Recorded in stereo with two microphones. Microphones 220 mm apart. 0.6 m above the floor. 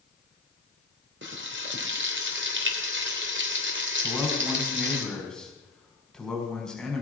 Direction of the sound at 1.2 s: 60° right (ahead or behind).